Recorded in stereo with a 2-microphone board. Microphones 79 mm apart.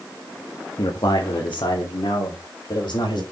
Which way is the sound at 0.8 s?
75° left (ahead or behind).